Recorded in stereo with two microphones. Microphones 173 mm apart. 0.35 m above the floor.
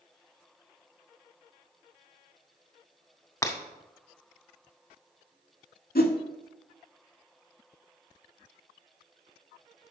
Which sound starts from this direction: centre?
Breaking glass, at 3.4 s.